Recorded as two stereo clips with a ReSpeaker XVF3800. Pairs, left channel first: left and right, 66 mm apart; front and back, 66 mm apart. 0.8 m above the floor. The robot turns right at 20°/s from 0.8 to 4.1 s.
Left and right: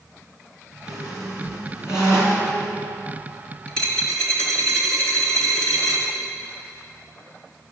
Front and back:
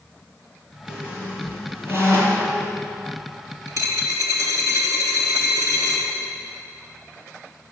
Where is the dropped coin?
165° left, 3 m; by 6.1 s 170° left, 3 m.